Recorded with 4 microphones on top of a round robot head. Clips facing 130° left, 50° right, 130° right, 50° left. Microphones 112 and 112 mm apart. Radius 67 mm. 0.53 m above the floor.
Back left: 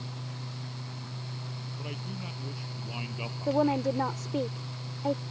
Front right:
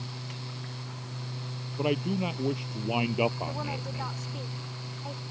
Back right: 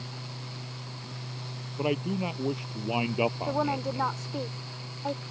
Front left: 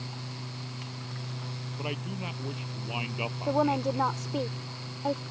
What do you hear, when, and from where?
1.8 s a man speaking: 75° right; by 4.1 s 80° right
3.5 s a woman speaking: 125° left